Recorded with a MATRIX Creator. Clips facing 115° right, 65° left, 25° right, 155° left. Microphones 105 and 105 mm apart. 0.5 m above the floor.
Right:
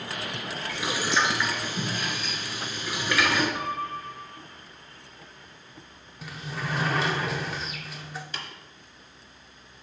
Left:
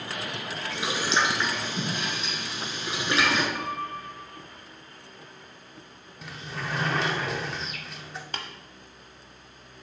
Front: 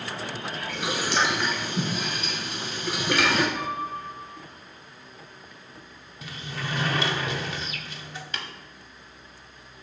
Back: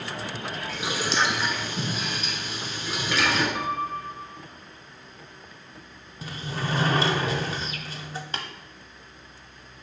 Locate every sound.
0.7 s boiling: 5° left, 1.6 m
3.5 s a piano: 170° left, 2 m
6.2 s a sliding door: 160° left, 0.7 m
8.3 s tapping: 105° left, 0.9 m